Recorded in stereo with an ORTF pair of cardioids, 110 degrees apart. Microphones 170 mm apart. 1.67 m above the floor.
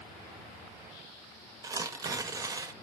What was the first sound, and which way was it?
Tearing paper, 20° right.